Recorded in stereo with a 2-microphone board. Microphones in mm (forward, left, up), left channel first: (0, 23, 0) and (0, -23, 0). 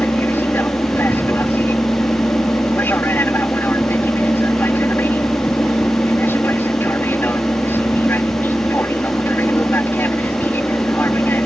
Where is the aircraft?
55° left (ahead or behind).